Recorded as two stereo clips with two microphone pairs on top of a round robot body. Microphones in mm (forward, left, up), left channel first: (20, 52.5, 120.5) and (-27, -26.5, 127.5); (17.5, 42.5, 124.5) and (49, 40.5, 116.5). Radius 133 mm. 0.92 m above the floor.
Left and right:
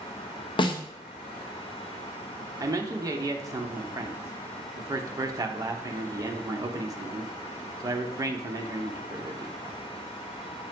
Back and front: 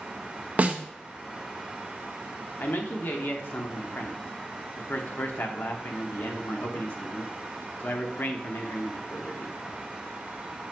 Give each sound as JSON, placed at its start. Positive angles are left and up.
{"t": 0.6, "sound": "a snare drum", "azimuth_deg": 35, "distance_m": 1.0}
{"t": 2.6, "sound": "a man speaking", "azimuth_deg": -175, "distance_m": 1.0}